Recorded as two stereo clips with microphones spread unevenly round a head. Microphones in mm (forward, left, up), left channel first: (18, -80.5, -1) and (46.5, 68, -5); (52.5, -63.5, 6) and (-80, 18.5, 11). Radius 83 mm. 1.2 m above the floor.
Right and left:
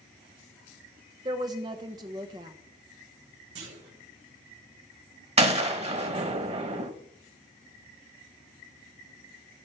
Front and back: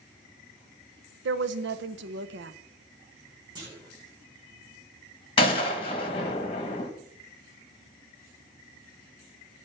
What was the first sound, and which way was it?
A woman speaking, 145° left.